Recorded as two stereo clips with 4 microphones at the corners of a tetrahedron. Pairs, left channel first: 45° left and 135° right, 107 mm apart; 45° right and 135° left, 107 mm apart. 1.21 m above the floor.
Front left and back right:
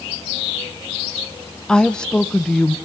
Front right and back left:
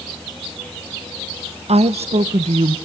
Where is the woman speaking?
130° left, 0.6 m.